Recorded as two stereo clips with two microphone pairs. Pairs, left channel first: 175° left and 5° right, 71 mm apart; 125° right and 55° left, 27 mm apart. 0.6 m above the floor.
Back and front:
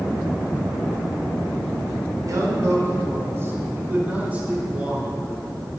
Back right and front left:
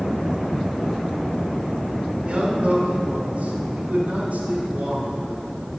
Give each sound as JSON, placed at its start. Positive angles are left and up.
{"t": 2.2, "sound": "a man speaking", "azimuth_deg": 20, "distance_m": 2.0}